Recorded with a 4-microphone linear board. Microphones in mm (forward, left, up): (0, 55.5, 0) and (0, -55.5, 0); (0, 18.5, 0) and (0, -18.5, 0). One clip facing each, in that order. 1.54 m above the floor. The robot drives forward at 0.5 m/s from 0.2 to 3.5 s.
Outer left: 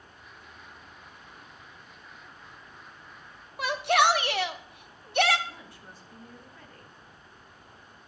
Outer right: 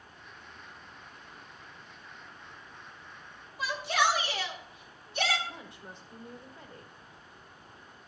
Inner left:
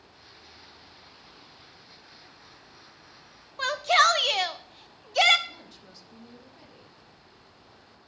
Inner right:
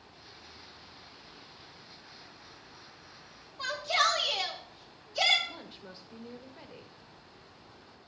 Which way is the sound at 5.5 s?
20° right (ahead or behind).